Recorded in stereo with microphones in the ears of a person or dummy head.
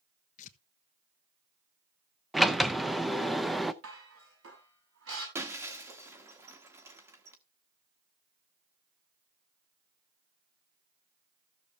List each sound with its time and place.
0.4 s tearing paper: 45° left (ahead or behind), 1.0 m
2.3 s a sliding door: centre (ahead or behind), 0.5 m
3.8 s dishes clattering: 80° right, 7.5 m
5.3 s breaking glass: 15° right (ahead or behind), 1.2 m